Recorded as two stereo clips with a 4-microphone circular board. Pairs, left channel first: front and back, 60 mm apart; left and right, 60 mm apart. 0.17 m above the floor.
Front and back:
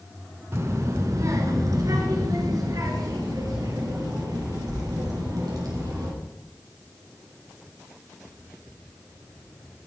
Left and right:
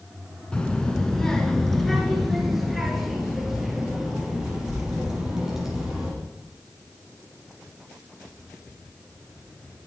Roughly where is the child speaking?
Behind.